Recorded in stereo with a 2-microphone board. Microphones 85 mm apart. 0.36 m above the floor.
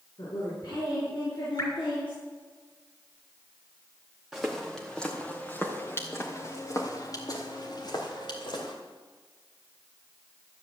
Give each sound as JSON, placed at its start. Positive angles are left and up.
{"t": 0.2, "sound": "a woman speaking", "side_deg": 60, "distance_m": 4.5}
{"t": 1.6, "sound": "dripping", "side_deg": 45, "distance_m": 3.5}
{"t": 4.3, "sound": "footsteps", "side_deg": 0, "distance_m": 2.5}